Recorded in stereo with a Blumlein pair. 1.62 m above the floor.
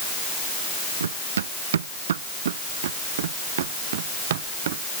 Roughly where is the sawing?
I don't hear sawing.